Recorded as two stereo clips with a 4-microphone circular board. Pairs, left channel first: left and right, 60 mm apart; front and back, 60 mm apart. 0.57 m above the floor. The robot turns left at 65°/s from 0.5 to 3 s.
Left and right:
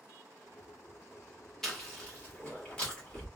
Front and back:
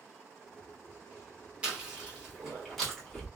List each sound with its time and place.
1.6 s chewing: 160° left, 1.3 m; by 3.3 s 70° left, 1.3 m